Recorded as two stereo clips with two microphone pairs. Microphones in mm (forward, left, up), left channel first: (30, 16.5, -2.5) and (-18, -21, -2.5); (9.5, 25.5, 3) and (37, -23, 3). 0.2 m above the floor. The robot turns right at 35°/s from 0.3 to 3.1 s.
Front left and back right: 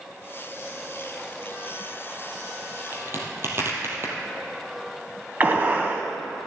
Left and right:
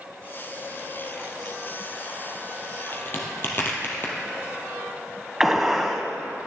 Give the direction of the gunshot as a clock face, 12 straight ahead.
5 o'clock.